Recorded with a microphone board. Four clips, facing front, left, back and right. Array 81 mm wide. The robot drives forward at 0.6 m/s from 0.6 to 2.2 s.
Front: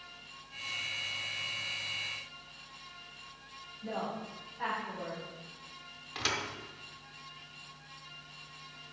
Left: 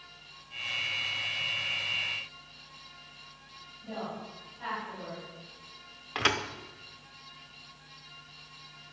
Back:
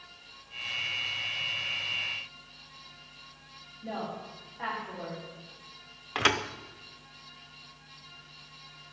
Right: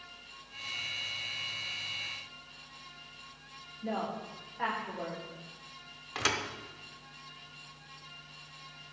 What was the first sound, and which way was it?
A woman speaking, 100° right.